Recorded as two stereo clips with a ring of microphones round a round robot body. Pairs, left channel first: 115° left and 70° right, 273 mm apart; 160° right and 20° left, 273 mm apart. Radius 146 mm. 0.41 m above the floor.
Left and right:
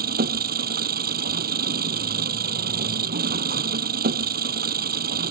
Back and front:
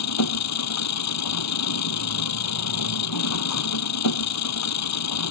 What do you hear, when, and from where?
0.0 s an engine running: 125° right